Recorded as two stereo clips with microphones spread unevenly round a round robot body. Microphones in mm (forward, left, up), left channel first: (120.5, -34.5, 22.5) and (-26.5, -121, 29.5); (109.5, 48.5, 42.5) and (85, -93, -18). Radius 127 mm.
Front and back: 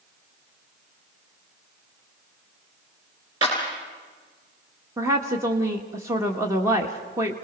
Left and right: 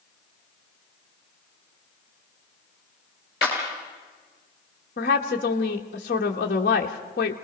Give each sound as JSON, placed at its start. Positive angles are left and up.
{"t": 3.4, "sound": "a clap", "azimuth_deg": 140, "distance_m": 4.0}
{"t": 5.0, "sound": "a woman speaking", "azimuth_deg": 135, "distance_m": 1.1}